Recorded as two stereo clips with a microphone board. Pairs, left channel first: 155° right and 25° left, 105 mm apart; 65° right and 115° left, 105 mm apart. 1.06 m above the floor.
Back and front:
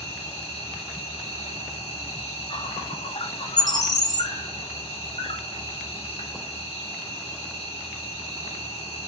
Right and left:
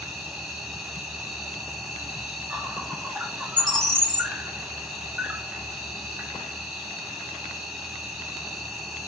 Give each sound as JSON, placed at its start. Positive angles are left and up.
{"t": 0.0, "sound": "an insect", "azimuth_deg": -165, "distance_m": 1.3}
{"t": 3.6, "sound": "a bird", "azimuth_deg": -110, "distance_m": 0.8}